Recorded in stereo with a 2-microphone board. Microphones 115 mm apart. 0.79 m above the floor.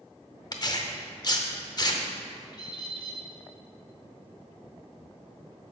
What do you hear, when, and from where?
0.5 s tearing paper: 35° left (ahead or behind), 0.7 m
2.5 s a bird: 35° left (ahead or behind), 1.0 m